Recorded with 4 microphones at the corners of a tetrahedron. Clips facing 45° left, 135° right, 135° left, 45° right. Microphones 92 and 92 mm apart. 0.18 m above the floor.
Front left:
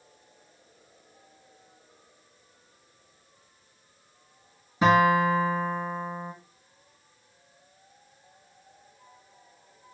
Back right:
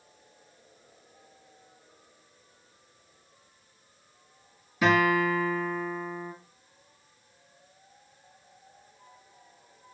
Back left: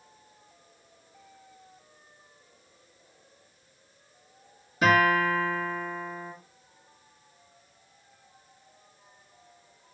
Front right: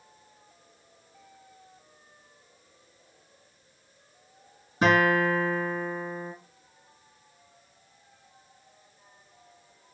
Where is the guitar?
Straight ahead, 2.0 m.